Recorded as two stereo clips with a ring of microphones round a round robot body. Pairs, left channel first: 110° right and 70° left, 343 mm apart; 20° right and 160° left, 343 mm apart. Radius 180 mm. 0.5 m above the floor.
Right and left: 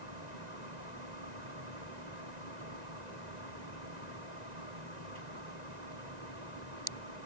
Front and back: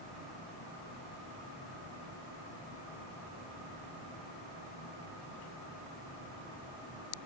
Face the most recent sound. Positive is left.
No sound to turn to.